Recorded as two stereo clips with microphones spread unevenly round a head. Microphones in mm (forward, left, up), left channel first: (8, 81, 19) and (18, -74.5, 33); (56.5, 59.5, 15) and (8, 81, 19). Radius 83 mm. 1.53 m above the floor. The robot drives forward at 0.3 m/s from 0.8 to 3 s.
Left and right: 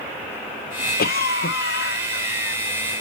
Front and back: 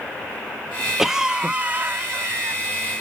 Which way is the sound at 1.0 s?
70° left.